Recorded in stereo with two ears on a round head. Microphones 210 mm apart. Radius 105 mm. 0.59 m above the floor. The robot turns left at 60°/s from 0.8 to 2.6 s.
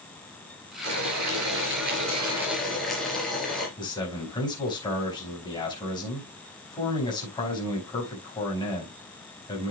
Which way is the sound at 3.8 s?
20° left (ahead or behind).